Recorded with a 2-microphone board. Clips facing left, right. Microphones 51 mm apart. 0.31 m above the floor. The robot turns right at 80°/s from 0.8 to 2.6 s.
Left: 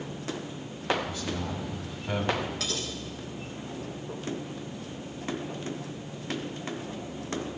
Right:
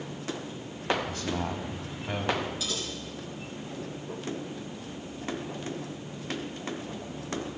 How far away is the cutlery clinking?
About 3 m.